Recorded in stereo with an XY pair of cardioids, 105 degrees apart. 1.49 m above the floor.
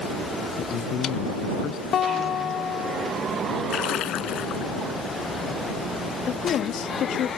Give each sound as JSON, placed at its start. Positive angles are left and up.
{"t": 0.6, "sound": "a man speaking", "azimuth_deg": 65}
{"t": 1.9, "sound": "a guitar", "azimuth_deg": 65}
{"t": 3.7, "sound": "a splash", "azimuth_deg": 70}
{"t": 6.3, "sound": "a woman speaking", "azimuth_deg": 70}